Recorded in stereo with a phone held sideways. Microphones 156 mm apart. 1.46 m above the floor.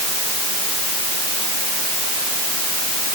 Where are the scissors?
I don't hear scissors.